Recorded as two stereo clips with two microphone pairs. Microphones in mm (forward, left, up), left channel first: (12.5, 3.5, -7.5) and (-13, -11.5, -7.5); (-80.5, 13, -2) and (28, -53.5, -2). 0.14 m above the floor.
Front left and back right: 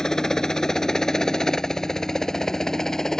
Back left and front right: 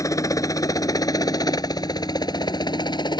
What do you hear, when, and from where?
0.0 s a helicopter: 95° left; by 3.2 s 100° left